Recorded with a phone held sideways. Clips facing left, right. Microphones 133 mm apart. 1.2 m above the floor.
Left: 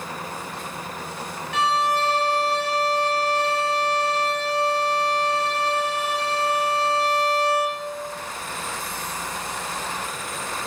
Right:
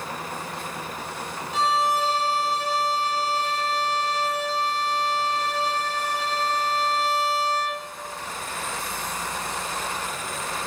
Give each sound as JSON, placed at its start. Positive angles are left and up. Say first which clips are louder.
{"t": 1.5, "sound": "a violin", "louder": "left 1 dB", "side_deg": 70, "distance_m": 1.4}